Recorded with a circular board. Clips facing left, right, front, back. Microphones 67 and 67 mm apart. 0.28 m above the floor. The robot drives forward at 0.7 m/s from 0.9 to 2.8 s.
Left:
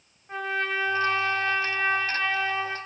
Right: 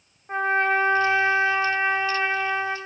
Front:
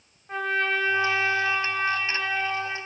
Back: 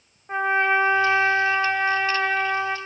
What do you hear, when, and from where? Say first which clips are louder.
0.3 s a trumpet: right 7 dB, back 5 dB; 130° right, 1.9 m; by 2.8 s 155° right, 2.5 m